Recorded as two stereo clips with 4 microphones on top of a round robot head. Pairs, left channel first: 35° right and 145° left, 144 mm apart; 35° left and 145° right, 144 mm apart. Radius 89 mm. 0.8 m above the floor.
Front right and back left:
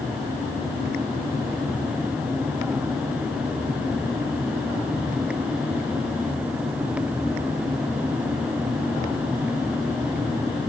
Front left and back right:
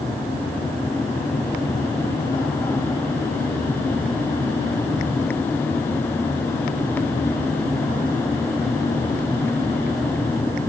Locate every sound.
Only background noise.